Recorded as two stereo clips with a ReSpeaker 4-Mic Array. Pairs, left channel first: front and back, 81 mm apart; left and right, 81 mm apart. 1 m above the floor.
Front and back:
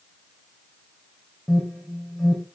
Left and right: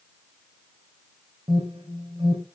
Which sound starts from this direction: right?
An alarm, at 1.5 s.